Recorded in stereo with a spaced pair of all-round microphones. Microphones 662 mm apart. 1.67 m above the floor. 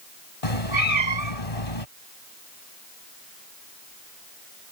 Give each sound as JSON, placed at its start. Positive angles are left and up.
{"t": 0.4, "sound": "a cat meowing", "side_deg": 55}